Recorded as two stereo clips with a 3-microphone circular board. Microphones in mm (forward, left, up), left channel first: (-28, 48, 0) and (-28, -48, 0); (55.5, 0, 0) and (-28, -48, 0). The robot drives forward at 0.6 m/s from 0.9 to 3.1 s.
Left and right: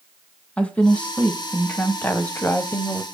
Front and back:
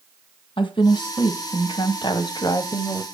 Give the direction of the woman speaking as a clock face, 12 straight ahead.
12 o'clock.